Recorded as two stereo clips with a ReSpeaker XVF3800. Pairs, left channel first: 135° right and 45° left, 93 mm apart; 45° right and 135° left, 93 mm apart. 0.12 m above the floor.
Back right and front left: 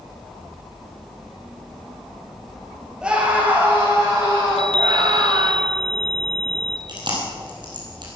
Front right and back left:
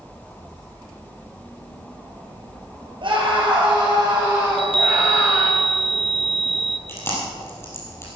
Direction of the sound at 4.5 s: 145° left.